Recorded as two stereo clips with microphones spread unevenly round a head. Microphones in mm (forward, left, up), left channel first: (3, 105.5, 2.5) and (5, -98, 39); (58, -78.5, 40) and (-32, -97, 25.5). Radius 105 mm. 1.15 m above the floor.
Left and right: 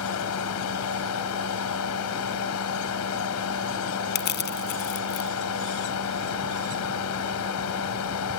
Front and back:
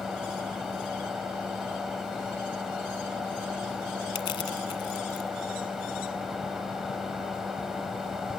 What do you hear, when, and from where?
0.0 s a fan: 100° left
4.2 s crushing: 50° left